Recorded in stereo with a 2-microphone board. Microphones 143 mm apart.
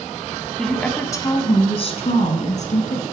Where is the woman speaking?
Centre (ahead or behind), 1.0 m; by 3.0 s 65° left (ahead or behind), 2 m.